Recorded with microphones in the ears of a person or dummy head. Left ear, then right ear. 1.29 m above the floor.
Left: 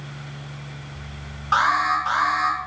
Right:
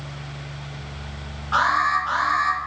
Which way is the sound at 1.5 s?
75° left (ahead or behind).